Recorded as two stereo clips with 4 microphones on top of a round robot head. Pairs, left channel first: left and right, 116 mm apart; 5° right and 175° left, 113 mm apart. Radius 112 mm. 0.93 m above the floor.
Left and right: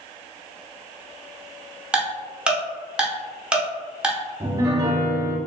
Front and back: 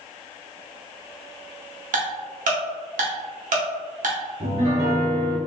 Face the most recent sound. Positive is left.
turn(degrees=-150)